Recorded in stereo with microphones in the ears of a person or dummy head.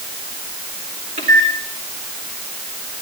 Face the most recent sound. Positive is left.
turn(degrees=-40)  # may be behind; listen again after turning